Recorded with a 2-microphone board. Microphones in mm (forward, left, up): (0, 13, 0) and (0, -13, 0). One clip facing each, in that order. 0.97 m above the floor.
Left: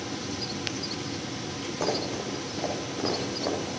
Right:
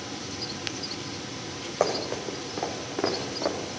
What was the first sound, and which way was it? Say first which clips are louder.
Running footsteps: right 3 dB; 65° right (ahead or behind).